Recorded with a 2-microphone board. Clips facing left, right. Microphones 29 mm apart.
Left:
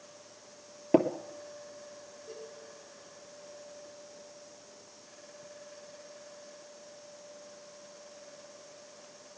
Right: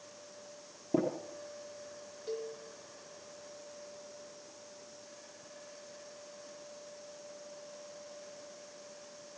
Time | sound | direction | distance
0.9 | tapping | 65° left (ahead or behind) | 2.5 m
2.3 | a cowbell | 75° right (ahead or behind) | 4.5 m